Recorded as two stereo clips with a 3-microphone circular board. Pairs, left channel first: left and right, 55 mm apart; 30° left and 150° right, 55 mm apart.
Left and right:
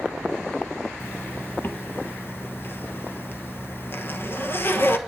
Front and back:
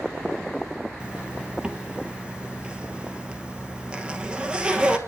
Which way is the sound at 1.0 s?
140° left.